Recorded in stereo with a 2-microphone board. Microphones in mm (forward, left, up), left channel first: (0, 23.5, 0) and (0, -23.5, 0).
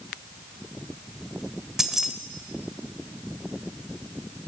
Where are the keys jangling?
10° right (ahead or behind), 0.9 m.